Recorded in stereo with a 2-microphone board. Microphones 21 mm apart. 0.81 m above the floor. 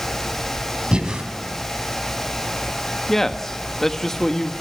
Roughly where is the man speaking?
Centre.